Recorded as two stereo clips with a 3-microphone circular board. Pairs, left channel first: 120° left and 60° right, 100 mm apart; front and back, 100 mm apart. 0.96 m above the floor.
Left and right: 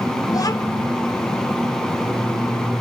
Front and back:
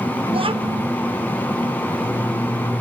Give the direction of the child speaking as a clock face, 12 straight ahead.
6 o'clock.